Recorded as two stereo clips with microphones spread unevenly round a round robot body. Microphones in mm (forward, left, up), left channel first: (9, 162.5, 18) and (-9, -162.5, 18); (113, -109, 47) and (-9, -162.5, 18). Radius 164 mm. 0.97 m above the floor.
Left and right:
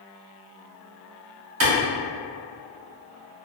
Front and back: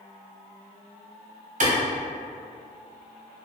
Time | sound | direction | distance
1.6 | a clap | 145° right | 1.6 m